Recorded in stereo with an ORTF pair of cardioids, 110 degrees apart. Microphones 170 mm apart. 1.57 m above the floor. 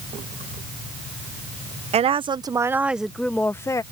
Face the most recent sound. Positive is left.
turn(degrees=20)